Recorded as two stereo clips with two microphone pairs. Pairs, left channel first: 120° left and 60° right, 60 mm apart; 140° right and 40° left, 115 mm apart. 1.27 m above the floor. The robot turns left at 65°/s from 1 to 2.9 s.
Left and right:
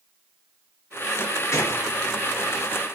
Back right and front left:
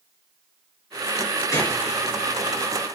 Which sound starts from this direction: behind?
A gunshot, at 1.5 s.